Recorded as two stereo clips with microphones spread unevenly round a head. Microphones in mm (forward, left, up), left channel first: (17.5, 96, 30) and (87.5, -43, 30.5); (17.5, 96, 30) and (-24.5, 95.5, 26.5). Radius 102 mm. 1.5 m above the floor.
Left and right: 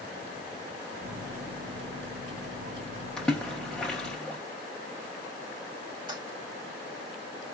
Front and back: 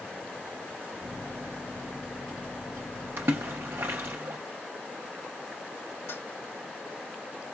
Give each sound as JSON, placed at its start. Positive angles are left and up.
{"t": 1.0, "sound": "a microwave", "azimuth_deg": -65, "distance_m": 1.2}
{"t": 3.2, "sound": "a splash", "azimuth_deg": -160, "distance_m": 0.6}
{"t": 6.1, "sound": "a toilet flushing", "azimuth_deg": 0, "distance_m": 2.5}